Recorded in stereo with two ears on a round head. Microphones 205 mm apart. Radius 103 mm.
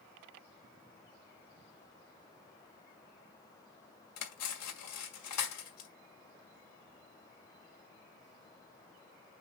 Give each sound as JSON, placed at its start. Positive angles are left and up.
{"t": 4.2, "sound": "cutlery clinking", "side_deg": 75, "distance_m": 1.8}